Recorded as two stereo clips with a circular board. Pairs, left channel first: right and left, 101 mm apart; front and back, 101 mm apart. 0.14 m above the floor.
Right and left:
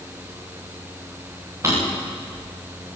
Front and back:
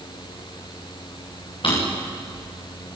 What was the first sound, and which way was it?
A drawer, 30° left.